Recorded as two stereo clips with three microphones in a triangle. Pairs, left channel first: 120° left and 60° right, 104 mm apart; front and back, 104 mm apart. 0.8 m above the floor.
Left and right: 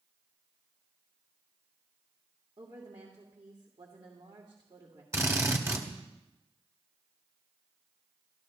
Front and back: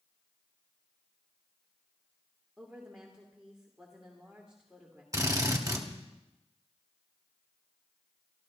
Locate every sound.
2.6 s a woman speaking: 95° right, 2 m
5.1 s a drill: 125° right, 1.6 m